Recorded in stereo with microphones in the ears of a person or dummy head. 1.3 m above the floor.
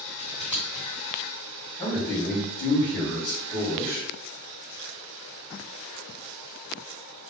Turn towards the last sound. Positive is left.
turn(degrees=5)  # may be behind; listen again after turning